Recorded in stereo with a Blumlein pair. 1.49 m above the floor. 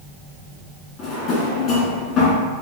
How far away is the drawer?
About 1.7 m.